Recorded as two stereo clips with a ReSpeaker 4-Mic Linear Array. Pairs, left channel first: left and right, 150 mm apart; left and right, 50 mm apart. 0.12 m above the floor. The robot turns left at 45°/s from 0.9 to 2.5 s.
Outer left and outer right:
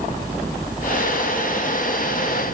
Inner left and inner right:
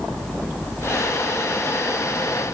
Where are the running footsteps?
No running footsteps in this recording.